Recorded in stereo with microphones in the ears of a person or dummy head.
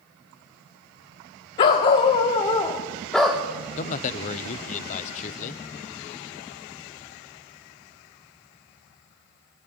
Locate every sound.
1.6 s a dog barking: 25° left (ahead or behind), 1.3 m; by 3.4 s centre (ahead or behind), 1.4 m
3.8 s a man speaking: 45° left (ahead or behind), 0.8 m